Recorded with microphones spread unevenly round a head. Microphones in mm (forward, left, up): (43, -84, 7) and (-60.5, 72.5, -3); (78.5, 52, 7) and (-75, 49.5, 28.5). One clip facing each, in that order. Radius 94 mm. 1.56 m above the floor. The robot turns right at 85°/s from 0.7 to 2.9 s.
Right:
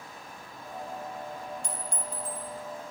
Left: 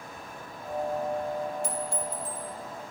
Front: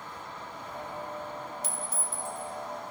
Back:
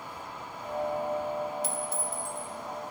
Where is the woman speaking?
I don't hear a woman speaking.